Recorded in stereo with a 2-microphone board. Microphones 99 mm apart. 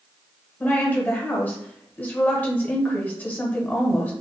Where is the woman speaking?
20° left (ahead or behind), 1.0 m.